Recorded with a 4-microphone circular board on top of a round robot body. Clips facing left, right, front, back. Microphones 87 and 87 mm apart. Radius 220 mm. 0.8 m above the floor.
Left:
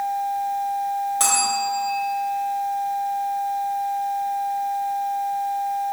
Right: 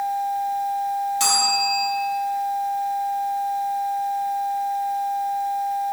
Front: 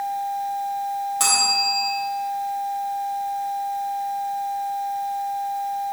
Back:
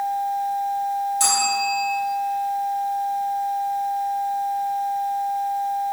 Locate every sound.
1.2 s a bell: 40° left, 3 m